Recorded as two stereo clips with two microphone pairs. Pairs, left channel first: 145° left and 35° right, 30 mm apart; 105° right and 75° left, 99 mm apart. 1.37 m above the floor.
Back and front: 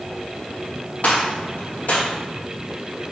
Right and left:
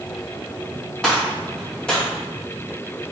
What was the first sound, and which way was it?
A gunshot, 170° left.